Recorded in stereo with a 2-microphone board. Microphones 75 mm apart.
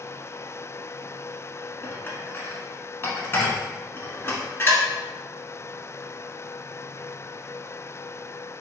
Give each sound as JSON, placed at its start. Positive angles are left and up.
{"t": 1.8, "sound": "dishes clattering", "side_deg": 30, "distance_m": 0.9}